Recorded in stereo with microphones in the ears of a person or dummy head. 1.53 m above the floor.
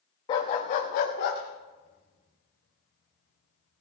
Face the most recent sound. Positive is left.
turn(degrees=65)  # may be behind; listen again after turning